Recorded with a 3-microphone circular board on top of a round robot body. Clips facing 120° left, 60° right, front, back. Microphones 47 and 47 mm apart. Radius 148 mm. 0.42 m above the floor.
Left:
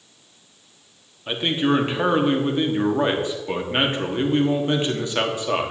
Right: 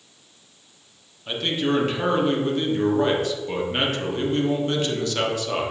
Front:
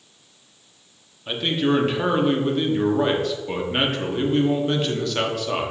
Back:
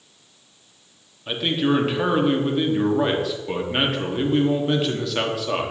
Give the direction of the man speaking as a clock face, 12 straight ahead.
9 o'clock.